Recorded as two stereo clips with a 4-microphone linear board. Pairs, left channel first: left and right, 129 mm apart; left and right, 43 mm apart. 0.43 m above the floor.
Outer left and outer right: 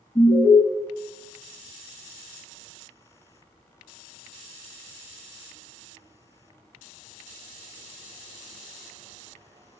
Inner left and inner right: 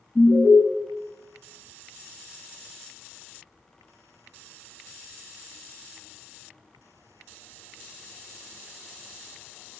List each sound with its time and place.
0.1 s an alarm: 65° left (ahead or behind), 4.5 m